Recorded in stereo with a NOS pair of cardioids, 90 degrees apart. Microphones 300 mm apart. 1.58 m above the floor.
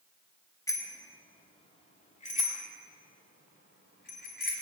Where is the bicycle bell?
10° left, 2 m; by 4.5 s 30° left, 4.5 m.